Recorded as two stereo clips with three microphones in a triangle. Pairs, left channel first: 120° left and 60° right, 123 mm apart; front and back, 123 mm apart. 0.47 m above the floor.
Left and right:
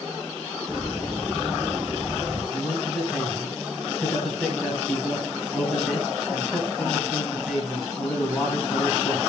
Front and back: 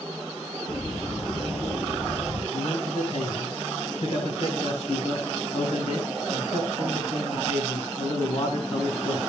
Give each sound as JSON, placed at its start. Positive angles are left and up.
{"t": 0.7, "sound": "a bird", "azimuth_deg": 35, "distance_m": 7.5}
{"t": 2.5, "sound": "a man speaking", "azimuth_deg": 30, "distance_m": 3.5}